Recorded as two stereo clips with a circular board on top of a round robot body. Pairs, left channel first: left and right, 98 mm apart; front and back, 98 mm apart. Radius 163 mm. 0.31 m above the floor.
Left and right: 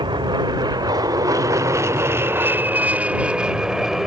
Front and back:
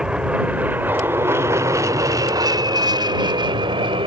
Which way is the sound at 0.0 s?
100° right.